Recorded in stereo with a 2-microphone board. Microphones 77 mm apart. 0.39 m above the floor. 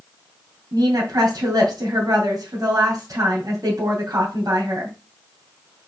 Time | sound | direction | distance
0.7 | a woman speaking | 50° right (ahead or behind) | 3 m